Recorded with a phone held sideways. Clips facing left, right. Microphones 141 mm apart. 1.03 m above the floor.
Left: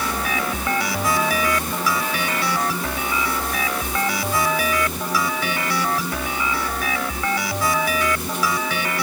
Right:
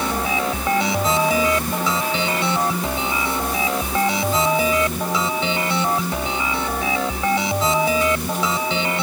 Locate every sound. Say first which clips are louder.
0.0 s a machine running: right 3 dB; 25° right (ahead or behind)